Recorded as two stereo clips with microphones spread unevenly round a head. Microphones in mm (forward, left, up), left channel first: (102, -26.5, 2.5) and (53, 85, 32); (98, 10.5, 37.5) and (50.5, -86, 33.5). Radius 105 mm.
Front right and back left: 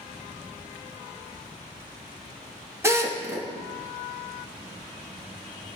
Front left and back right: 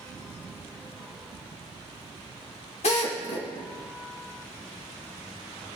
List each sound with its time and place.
2.8 s a drill: 50° left, 3 m